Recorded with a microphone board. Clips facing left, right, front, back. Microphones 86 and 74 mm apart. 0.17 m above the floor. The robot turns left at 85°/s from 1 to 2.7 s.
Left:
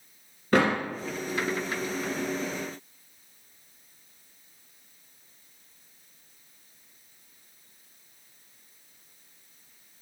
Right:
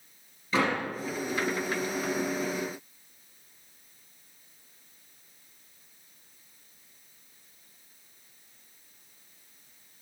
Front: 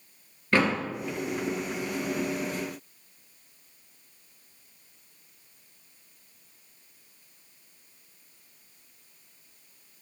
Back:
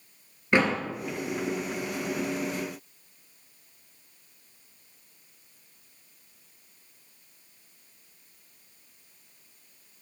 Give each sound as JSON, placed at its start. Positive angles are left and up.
{"t": 0.5, "sound": "a door slam", "azimuth_deg": 110, "distance_m": 2.5}